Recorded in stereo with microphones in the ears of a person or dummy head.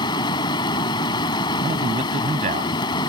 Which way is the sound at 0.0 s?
20° left (ahead or behind).